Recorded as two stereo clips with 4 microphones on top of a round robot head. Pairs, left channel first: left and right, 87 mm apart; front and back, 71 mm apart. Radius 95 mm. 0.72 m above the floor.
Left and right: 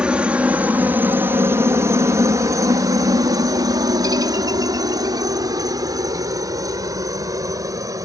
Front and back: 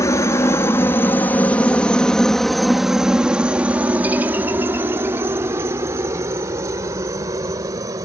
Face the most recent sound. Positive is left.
turn(degrees=-140)